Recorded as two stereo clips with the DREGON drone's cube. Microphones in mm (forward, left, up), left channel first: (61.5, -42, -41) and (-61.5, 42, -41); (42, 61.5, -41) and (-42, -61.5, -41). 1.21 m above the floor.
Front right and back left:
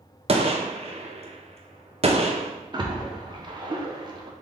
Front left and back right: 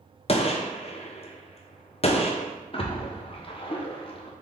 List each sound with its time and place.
0.3 s a gunshot: 100° left, 0.6 m
2.7 s a splash: 95° left, 0.7 m